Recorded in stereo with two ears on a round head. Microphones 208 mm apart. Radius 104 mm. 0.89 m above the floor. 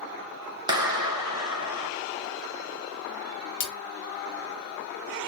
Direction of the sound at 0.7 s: 20° right (ahead or behind).